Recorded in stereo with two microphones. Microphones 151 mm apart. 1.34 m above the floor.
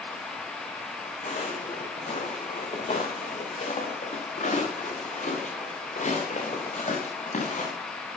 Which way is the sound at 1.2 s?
60° left (ahead or behind).